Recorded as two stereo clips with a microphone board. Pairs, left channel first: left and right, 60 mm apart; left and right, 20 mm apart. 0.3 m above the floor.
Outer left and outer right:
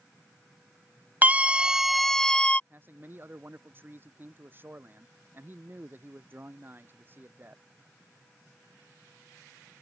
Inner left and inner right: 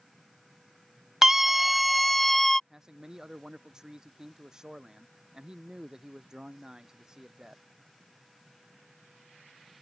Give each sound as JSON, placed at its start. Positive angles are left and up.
{"t": 1.2, "sound": "a scream", "side_deg": -30}
{"t": 2.7, "sound": "a man speaking", "side_deg": -35}